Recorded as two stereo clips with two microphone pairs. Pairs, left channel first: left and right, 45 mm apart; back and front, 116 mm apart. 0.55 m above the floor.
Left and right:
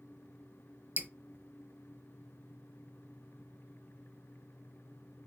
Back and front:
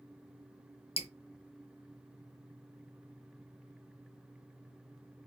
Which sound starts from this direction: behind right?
Dripping, at 1.0 s.